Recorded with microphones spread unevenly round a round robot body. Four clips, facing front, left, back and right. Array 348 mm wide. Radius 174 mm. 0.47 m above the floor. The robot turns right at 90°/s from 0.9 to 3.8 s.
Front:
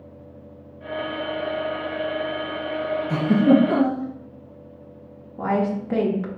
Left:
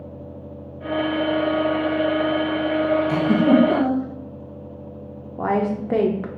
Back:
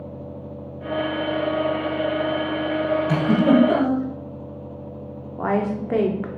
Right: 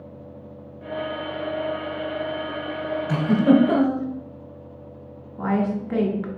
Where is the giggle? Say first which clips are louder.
Right 2 dB, front 2 dB; 170° right, 1.0 m; by 4.1 s 110° right, 1.0 m.